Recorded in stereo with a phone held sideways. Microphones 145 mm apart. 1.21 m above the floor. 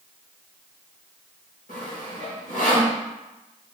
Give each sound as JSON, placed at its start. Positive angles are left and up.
{"t": 1.7, "sound": "sawing", "side_deg": 75, "distance_m": 1.5}